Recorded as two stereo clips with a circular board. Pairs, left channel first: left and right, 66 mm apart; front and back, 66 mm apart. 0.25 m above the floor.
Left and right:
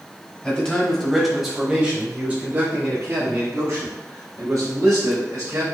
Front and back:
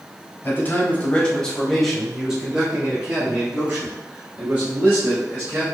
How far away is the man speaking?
About 1.1 m.